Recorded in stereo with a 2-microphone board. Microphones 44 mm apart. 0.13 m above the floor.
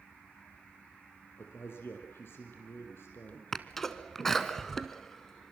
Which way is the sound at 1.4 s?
60° left (ahead or behind).